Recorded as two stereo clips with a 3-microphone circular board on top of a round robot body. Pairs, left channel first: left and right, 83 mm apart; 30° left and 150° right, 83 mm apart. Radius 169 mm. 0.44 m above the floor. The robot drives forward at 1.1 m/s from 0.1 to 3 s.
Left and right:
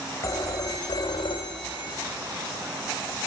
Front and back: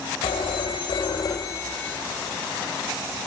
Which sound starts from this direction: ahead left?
A phone ringing, at 0.2 s.